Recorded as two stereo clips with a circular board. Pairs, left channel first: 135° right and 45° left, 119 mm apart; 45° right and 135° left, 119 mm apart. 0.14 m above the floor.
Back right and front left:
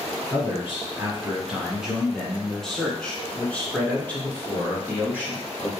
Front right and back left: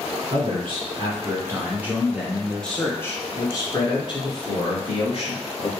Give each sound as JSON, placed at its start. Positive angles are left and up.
{"t": 0.3, "sound": "a man speaking", "azimuth_deg": 120, "distance_m": 1.5}